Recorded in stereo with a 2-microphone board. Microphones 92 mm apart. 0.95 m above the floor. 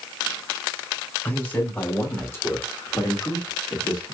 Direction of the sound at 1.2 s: 20° left (ahead or behind).